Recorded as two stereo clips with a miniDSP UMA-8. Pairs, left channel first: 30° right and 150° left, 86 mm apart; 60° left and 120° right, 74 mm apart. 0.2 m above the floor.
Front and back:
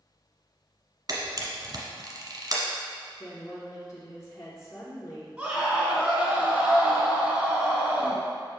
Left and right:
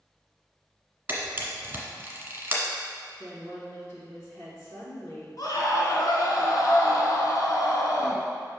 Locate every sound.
1.1 s a camera shutter: straight behind, 1.4 m
3.2 s a woman speaking: straight ahead, 1.7 m
5.4 s a scream: 75° left, 1.9 m